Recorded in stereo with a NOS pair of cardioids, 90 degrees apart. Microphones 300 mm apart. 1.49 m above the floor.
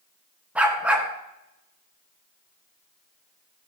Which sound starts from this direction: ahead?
A dog barking, at 0.6 s.